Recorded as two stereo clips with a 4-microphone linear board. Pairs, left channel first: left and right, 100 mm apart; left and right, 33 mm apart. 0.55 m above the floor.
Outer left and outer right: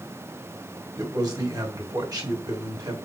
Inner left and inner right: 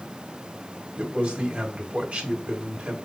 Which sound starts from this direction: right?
A man speaking, at 1.0 s.